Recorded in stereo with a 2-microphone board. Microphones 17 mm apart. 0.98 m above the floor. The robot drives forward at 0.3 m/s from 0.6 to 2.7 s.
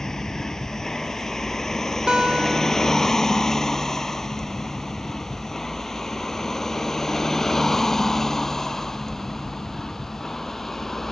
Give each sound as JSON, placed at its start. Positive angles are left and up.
{"t": 0.0, "sound": "a vehicle", "side_deg": 30}
{"t": 2.1, "sound": "a guitar", "side_deg": -55}